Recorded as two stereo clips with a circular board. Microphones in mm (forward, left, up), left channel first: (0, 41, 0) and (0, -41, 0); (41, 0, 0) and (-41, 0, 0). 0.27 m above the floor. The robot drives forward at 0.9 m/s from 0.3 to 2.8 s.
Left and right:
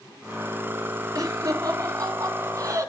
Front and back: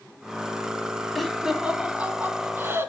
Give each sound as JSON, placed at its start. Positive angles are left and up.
{"t": 1.1, "sound": "laughter", "azimuth_deg": -90, "distance_m": 2.5}